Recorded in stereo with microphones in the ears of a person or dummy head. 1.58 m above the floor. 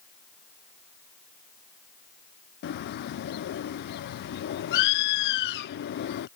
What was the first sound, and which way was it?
A bird, 65° left (ahead or behind).